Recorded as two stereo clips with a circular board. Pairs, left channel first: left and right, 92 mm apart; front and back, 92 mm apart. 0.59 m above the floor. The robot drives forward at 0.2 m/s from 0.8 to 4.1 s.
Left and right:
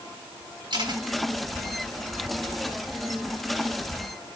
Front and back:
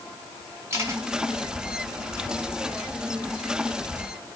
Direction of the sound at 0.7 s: 120° right.